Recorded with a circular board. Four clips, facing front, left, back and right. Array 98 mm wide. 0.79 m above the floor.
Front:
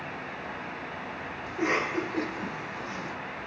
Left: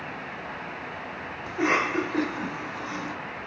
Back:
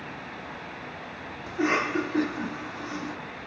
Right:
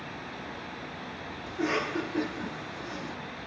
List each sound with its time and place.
1.5 s a cough: 105° left, 2 m